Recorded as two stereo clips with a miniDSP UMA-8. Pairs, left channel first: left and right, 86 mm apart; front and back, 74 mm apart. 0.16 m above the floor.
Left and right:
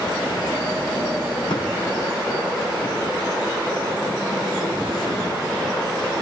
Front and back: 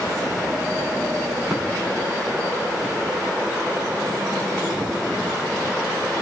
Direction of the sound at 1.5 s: 95° left.